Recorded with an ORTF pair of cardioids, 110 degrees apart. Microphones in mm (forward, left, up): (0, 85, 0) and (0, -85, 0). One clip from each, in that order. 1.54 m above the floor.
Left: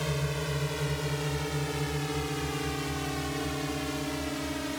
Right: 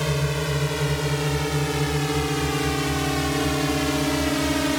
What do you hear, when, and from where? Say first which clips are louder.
0.0 s a drone: right 7 dB; 40° right; by 4.8 s 65° right